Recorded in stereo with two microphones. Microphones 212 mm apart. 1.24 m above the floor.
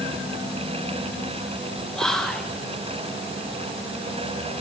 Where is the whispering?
5° left (ahead or behind), 1.3 m.